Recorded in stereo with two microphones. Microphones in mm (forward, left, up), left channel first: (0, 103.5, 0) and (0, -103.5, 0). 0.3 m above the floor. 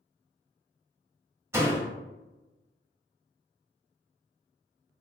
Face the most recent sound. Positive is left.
turn(degrees=-10)  # may be behind; listen again after turning